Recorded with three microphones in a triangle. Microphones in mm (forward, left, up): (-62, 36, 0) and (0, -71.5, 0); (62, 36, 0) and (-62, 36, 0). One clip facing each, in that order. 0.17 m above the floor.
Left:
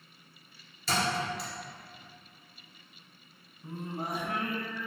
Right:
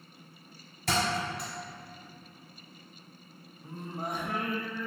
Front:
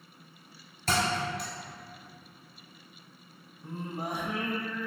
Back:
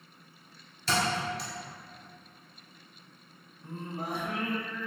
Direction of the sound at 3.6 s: 45° left.